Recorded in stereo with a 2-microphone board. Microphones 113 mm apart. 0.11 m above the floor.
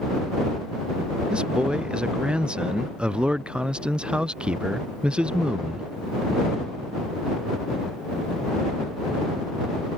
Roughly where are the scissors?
I don't hear scissors.